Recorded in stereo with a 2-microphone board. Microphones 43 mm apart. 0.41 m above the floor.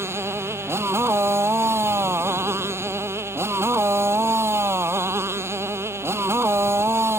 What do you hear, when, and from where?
0.0 s a motorcycle: 90° right